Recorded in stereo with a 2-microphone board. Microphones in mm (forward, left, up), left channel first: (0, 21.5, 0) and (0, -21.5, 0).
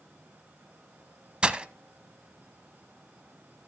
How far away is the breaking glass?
About 0.6 m.